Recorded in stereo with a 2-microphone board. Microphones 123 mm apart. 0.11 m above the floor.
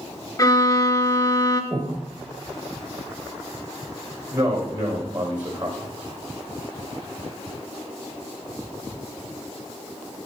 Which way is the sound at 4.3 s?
35° right (ahead or behind).